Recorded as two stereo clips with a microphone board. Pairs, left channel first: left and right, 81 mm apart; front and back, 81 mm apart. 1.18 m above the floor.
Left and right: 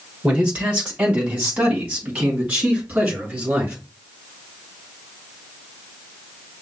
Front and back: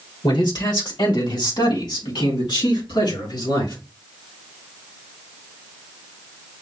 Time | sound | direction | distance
0.2 | a man speaking | 15° right | 1.5 m